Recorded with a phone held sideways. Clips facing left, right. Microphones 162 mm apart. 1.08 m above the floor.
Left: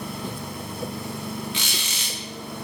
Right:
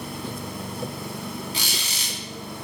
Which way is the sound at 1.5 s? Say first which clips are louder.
Even; 40° right (ahead or behind).